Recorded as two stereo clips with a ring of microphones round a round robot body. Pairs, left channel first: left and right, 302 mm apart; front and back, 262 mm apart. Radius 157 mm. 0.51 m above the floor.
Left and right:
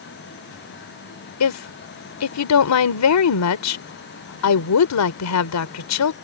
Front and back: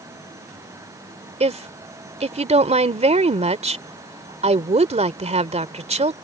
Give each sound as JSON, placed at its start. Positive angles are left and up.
{"t": 1.4, "sound": "a woman speaking", "azimuth_deg": 115}